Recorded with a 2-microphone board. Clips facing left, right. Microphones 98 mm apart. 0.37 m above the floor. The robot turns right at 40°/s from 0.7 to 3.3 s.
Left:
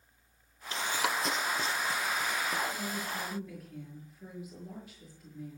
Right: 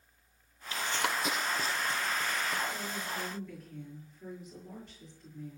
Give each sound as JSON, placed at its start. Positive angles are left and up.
{"t": 0.7, "sound": "running footsteps", "side_deg": 35, "distance_m": 0.6}
{"t": 2.7, "sound": "a woman speaking", "side_deg": -15, "distance_m": 6.5}